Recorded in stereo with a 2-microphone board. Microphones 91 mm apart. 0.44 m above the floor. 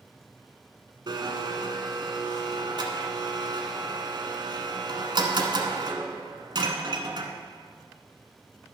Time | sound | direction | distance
1.1 | a blender | 55° right (ahead or behind) | 1.1 m